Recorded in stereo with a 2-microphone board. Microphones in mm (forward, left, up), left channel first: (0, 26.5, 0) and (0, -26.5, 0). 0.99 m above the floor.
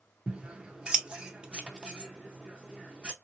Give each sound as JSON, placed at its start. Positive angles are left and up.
{"t": 0.3, "sound": "scissors", "side_deg": -15, "distance_m": 0.6}